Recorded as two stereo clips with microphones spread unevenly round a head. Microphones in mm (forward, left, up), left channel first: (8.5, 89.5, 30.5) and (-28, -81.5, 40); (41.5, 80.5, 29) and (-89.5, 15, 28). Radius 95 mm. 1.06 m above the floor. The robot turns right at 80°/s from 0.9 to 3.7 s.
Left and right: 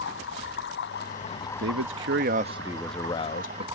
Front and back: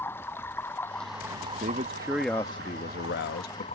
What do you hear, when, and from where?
0.0 s running water: 100° left; by 3.8 s 35° right
1.6 s a man speaking: 115° right; by 3.6 s 50° left